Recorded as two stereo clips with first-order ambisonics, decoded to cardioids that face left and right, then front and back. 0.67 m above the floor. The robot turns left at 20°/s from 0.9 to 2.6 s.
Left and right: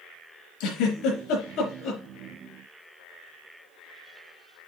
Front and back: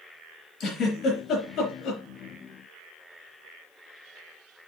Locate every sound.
0.6 s a giggle: 65° left, 4.5 m; by 2.0 s 45° left, 4.5 m